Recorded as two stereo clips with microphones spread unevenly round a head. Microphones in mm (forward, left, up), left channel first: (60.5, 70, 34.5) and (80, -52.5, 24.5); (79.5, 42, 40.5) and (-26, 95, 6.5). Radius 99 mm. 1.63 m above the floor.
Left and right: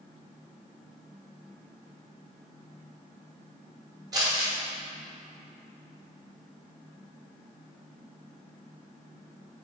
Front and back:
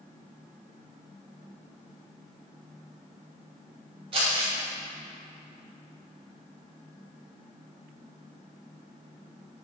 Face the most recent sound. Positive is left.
turn(degrees=-150)